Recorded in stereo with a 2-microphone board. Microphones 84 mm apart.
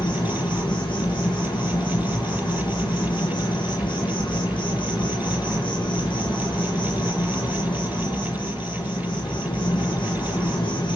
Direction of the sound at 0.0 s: 75° left (ahead or behind).